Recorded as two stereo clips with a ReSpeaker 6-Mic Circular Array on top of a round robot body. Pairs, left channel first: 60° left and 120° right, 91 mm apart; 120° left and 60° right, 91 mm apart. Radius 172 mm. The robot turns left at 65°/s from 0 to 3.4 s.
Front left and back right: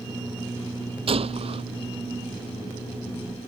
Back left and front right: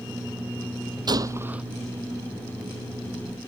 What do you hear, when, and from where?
1.1 s a gunshot: 105° right; by 1.6 s 140° right